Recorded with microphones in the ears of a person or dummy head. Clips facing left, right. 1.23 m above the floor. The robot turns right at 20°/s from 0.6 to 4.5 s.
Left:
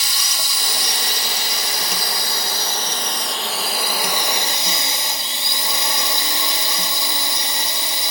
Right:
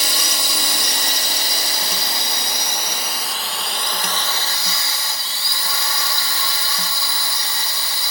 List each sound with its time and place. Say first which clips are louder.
0.0 s a drone: right 5 dB; 60° right; by 8.1 s 20° left